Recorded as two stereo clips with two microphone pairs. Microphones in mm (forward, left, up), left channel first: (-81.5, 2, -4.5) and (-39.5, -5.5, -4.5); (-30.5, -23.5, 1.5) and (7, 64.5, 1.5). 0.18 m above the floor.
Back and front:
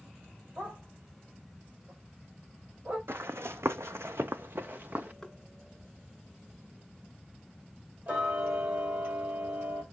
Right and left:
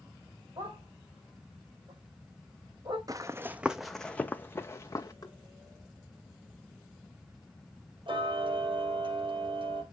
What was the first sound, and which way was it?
A dog barking, 35° left.